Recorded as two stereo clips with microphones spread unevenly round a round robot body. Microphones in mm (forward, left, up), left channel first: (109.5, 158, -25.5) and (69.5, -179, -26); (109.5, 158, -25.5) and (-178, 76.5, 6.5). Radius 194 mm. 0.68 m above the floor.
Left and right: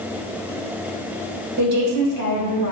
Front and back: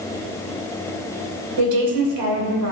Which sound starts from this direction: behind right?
A woman speaking, at 1.6 s.